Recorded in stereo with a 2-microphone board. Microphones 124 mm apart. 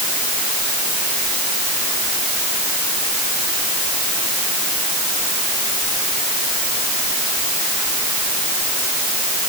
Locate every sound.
Only background noise.